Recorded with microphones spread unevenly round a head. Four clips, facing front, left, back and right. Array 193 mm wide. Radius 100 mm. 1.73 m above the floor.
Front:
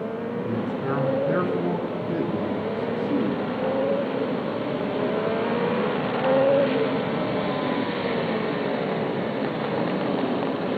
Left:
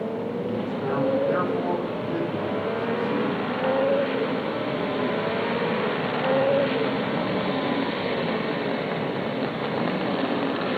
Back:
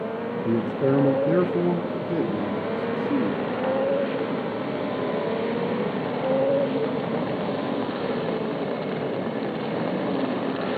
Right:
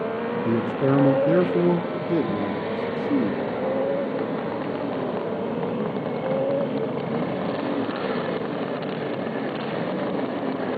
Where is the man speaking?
120° right, 1.5 m; by 3.4 s 70° right, 4 m.